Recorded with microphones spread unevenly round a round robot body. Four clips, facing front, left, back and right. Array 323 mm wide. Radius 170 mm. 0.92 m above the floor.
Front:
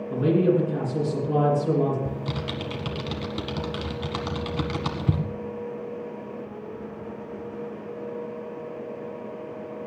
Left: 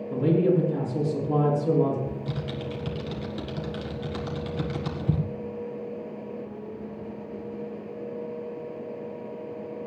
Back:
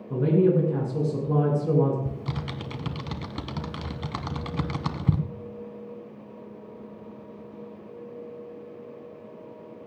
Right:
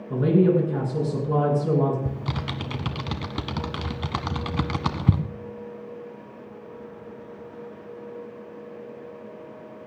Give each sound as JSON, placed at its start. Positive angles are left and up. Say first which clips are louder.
{"t": 0.1, "sound": "a man speaking", "louder": "right 3 dB, even", "azimuth_deg": -115, "distance_m": 8.5}
{"t": 2.0, "sound": "typing on a keyboard", "louder": "right 1 dB, front 3 dB", "azimuth_deg": -105, "distance_m": 1.2}